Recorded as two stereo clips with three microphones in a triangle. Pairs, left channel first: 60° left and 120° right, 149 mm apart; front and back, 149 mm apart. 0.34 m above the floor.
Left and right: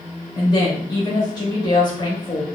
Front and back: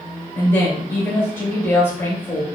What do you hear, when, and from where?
0.3 s a woman speaking: 60° left, 1.0 m